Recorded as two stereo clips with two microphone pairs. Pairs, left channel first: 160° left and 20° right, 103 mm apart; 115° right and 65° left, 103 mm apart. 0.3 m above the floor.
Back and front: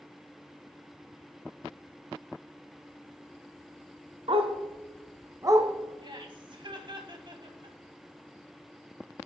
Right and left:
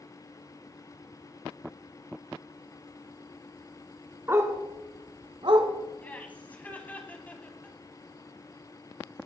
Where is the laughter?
45° right, 2 m.